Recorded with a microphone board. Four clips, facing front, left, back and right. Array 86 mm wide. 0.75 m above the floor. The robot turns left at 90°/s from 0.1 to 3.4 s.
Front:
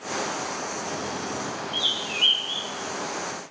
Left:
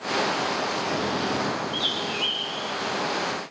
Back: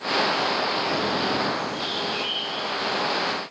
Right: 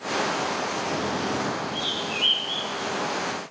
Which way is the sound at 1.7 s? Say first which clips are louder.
Left 1 dB, back 4 dB; 40° left.